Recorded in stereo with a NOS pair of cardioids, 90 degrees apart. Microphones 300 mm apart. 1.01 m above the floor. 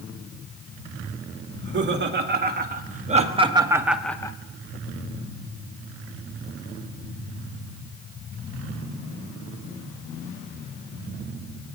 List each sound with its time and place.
1.5 s laughter: 40° right, 2.5 m; by 4.3 s 20° left, 1.0 m